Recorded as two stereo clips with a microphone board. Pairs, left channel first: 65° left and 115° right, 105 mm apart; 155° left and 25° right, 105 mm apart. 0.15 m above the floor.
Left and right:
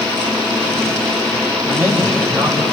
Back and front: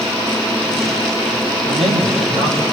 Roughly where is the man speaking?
Ahead right.